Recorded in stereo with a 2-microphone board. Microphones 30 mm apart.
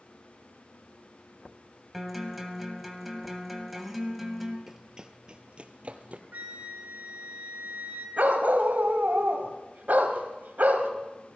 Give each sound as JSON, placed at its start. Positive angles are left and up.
{"t": 1.9, "sound": "a guitar", "side_deg": -5, "distance_m": 2.0}
{"t": 4.7, "sound": "running footsteps", "side_deg": -15, "distance_m": 0.9}
{"t": 6.3, "sound": "a flute", "side_deg": -75, "distance_m": 2.5}
{"t": 8.2, "sound": "a dog barking", "side_deg": -70, "distance_m": 1.4}